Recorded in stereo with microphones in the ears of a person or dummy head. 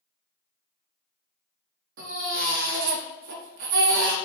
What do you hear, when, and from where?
2.0 s a baby crying: 55° right (ahead or behind), 1.1 m